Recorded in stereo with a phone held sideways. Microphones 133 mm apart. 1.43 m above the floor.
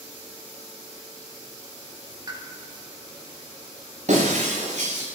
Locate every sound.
2.3 s a pop: 30° right (ahead or behind), 3.5 m
4.1 s breaking glass: 60° right (ahead or behind), 10 m